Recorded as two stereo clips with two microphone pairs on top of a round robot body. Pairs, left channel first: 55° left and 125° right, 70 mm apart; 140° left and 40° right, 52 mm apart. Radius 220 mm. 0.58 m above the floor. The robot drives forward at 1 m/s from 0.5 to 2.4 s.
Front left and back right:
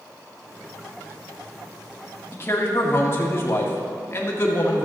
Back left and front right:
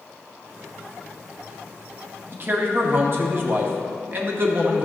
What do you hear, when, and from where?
2.3 s a man speaking: straight ahead, 1.8 m